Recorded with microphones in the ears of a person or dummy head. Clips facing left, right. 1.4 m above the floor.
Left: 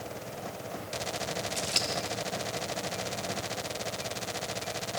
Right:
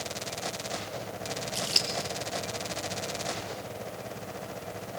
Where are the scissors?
10° right (ahead or behind), 1.5 m.